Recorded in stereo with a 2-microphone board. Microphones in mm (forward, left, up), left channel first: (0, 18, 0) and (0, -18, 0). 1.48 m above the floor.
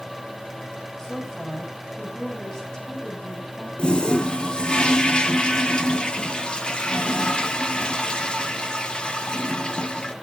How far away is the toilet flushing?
About 1.2 m.